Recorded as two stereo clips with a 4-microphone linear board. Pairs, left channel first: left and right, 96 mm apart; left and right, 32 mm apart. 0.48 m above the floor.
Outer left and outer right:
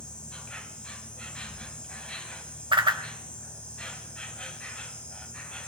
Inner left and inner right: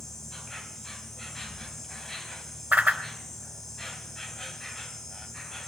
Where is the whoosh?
60° right (ahead or behind), 1.4 m.